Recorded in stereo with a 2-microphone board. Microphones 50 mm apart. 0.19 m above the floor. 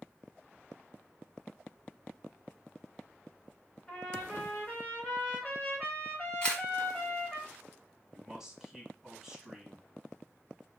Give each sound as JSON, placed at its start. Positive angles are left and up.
{"t": 3.9, "sound": "a trumpet", "side_deg": 15, "distance_m": 2.0}
{"t": 6.4, "sound": "a camera shutter", "side_deg": 20, "distance_m": 1.3}
{"t": 8.1, "sound": "a man speaking", "side_deg": -10, "distance_m": 1.1}